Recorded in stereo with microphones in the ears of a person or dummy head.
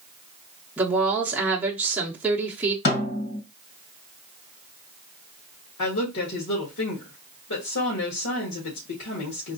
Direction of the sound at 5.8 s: 70° left (ahead or behind).